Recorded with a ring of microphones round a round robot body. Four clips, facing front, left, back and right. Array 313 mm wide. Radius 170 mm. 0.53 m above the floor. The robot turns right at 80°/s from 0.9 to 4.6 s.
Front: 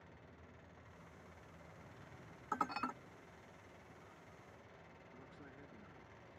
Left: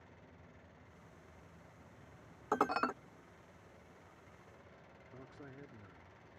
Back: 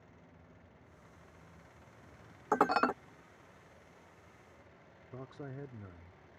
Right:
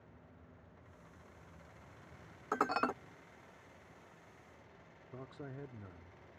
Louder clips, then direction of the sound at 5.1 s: Right 6 dB, back 14 dB; 155° right.